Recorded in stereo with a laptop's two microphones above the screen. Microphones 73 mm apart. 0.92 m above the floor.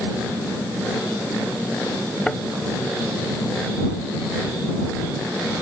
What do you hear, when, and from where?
2.3 s a thud: 5° left (ahead or behind)